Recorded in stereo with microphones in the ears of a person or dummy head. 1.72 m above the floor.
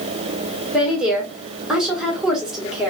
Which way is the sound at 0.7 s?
5° right (ahead or behind).